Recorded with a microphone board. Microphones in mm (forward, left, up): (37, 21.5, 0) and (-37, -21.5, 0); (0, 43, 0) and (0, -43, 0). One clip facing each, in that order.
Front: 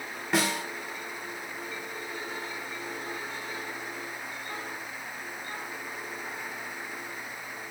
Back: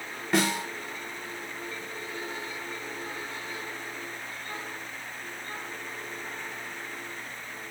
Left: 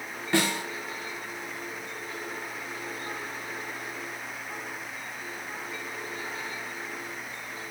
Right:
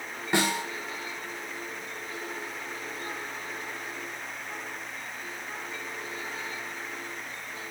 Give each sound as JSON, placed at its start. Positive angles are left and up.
{"t": 0.3, "sound": "a snare drum", "azimuth_deg": -50, "distance_m": 1.3}